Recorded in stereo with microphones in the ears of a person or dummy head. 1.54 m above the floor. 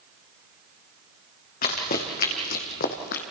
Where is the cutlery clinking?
I don't hear cutlery clinking.